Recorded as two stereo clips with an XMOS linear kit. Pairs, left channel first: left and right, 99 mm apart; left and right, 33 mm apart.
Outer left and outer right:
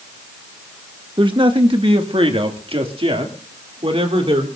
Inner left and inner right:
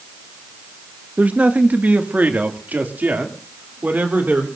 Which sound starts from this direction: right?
A man speaking, at 1.2 s.